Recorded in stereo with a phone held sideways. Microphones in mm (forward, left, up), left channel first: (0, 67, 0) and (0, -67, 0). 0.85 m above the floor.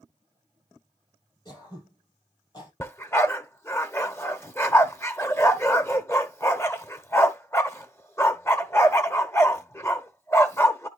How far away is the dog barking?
About 1.0 m.